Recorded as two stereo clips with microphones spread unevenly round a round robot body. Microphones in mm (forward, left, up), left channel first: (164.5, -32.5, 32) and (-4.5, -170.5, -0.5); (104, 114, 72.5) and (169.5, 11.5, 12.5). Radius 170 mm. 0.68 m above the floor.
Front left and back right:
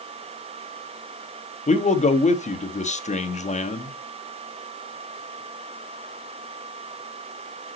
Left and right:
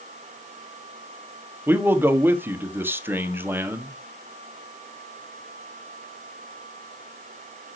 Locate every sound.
1.7 s a man speaking: 20° right, 1.4 m